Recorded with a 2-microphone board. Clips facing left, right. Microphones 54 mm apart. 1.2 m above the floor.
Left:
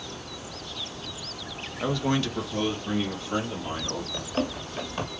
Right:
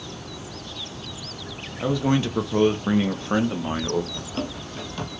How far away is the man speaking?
About 0.6 m.